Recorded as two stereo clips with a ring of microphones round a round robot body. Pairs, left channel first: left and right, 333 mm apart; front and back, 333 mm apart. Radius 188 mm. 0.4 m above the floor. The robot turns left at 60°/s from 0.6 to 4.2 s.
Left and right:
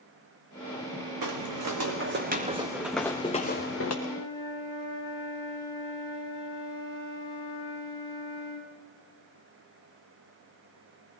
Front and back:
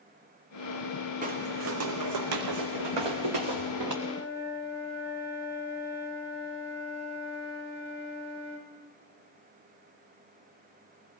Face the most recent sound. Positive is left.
turn(degrees=115)